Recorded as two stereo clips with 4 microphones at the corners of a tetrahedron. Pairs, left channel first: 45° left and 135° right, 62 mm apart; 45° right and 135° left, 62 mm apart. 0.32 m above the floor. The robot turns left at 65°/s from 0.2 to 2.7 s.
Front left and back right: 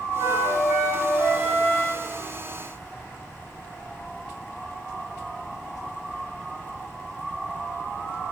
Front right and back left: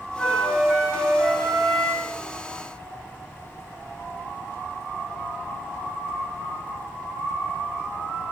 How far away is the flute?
About 2.5 m.